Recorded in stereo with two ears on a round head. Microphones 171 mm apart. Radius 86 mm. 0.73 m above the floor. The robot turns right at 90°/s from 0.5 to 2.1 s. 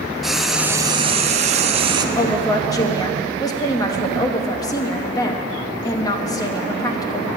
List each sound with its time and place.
0.2 s frying: 175° right, 0.5 m; by 2.0 s 40° right, 0.5 m
2.1 s a woman speaking: 20° left (ahead or behind), 0.8 m